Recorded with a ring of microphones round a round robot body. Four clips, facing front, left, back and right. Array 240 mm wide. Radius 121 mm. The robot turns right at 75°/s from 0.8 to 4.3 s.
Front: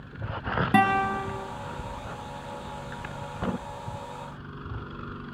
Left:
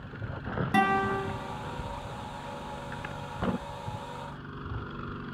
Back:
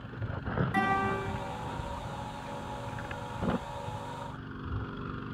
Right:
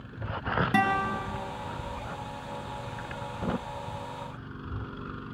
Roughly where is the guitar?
Ahead.